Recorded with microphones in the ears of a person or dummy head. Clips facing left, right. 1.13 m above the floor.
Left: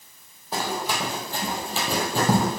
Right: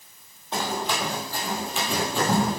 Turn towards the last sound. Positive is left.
turn(degrees=50)  # may be behind; listen again after turning